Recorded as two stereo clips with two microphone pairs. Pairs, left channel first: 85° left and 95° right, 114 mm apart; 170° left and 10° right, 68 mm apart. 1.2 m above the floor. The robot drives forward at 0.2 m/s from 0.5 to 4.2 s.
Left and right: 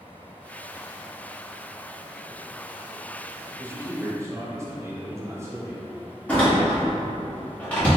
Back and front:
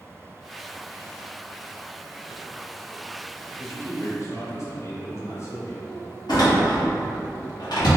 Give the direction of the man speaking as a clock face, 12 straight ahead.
5 o'clock.